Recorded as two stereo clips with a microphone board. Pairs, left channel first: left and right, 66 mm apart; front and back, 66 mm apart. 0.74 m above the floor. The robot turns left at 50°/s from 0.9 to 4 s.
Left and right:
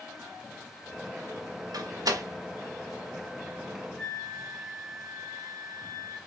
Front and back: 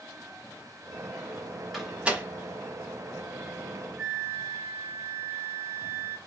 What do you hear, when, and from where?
1.7 s a door slam: 90° right, 1.0 m; by 2.2 s 115° right, 1.0 m
4.0 s a flute: 170° left, 1.0 m; by 6.2 s 165° left, 1.0 m